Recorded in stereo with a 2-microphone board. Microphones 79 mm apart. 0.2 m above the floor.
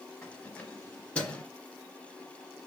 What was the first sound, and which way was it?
Keys jangling, 15° left (ahead or behind).